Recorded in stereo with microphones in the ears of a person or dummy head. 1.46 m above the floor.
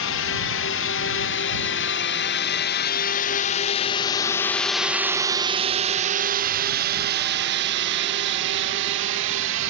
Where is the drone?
65° left (ahead or behind); by 9.7 s 65° right (ahead or behind).